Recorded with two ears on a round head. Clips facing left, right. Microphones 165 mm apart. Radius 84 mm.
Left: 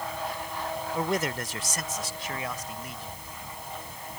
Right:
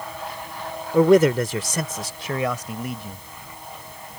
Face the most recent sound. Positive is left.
turn(degrees=-50)  # may be behind; listen again after turning